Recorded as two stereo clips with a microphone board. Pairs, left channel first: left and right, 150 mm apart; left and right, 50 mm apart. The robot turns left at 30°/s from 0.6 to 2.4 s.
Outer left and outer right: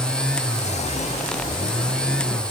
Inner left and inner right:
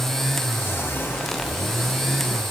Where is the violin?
No violin in this recording.